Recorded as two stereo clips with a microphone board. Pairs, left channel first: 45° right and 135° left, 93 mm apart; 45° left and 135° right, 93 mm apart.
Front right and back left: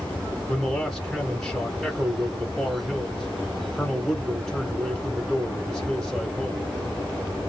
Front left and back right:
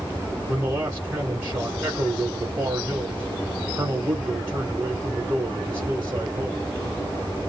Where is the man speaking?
135° right, 1.1 m.